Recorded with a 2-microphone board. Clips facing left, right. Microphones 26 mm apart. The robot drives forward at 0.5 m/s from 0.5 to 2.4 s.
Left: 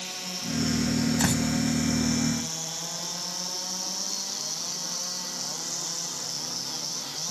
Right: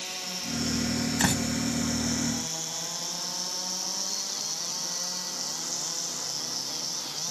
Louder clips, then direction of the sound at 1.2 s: Left 1 dB; 20° right (ahead or behind).